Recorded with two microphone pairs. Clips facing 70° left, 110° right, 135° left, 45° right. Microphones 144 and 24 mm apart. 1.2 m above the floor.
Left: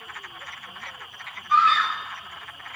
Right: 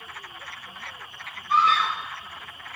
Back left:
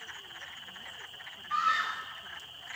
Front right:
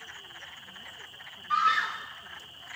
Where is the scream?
55° right, 3 m; by 2.7 s 75° right, 4 m.